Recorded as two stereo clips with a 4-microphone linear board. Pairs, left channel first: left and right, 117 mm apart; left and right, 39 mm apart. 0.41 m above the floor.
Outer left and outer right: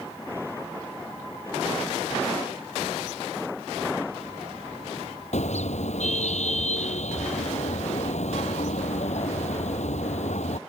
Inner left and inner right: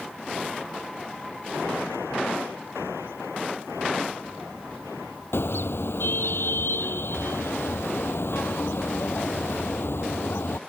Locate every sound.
5.3 s a car horn: 75° left (ahead or behind)